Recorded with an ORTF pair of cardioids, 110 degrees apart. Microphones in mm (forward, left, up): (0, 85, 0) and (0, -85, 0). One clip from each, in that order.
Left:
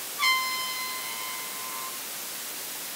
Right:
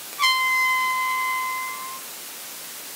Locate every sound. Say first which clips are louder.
0.2 s a trumpet: right 6 dB; 35° right, 1.1 m